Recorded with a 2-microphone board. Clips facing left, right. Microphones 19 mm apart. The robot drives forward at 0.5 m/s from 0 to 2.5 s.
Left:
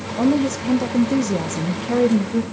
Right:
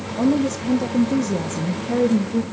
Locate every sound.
0.2 s a woman speaking: 10° left (ahead or behind), 0.9 m; by 2.4 s 15° left (ahead or behind), 0.6 m